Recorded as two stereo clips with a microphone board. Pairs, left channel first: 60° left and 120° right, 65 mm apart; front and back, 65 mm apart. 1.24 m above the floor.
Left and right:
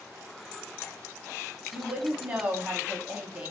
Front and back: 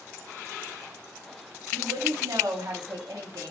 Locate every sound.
1.7 s a woman speaking: 170° left, 0.9 m